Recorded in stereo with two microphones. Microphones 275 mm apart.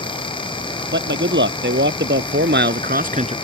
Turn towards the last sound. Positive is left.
turn(degrees=-20)  # may be behind; listen again after turning